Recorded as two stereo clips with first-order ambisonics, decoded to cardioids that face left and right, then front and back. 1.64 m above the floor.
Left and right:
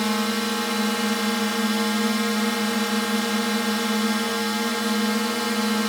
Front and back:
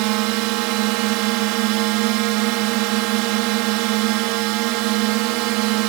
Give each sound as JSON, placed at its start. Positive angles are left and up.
{"t": 0.0, "sound": "a drone", "azimuth_deg": 180}